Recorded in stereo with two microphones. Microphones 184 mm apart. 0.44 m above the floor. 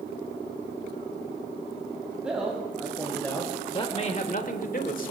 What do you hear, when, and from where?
2.2 s a man speaking: 5° right (ahead or behind), 2.5 m; by 5.1 s 45° left (ahead or behind), 1.7 m